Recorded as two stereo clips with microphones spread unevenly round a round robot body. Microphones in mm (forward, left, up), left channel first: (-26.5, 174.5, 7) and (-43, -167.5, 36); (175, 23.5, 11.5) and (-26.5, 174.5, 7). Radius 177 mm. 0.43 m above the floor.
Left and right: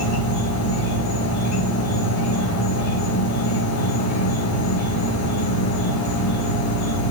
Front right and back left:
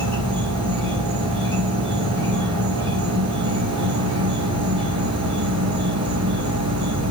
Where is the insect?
75° left, 7.5 m.